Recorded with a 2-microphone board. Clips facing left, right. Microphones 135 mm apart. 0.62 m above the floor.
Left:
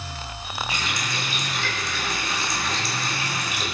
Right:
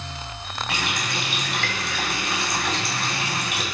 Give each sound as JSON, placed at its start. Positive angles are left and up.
{"t": 0.7, "sound": "a running tap", "side_deg": -70, "distance_m": 3.5}